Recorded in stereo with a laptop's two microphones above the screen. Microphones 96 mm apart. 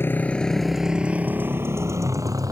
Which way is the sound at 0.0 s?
25° left (ahead or behind).